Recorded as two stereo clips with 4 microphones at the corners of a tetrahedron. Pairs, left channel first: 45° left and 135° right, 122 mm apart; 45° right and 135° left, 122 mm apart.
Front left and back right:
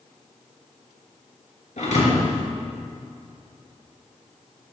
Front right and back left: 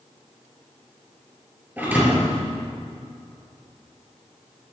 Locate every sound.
1.8 s a thud: 60° left, 3 m